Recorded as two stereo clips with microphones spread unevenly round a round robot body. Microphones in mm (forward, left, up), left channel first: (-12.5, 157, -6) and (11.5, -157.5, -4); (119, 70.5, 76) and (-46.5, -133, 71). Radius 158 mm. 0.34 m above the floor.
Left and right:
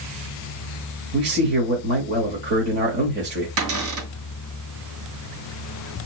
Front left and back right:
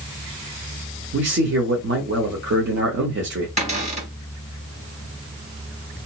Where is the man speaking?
125° right, 1.1 m.